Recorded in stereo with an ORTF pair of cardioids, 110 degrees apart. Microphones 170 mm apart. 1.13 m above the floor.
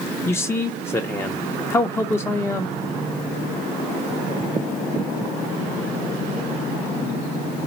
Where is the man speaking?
15° left, 0.5 m.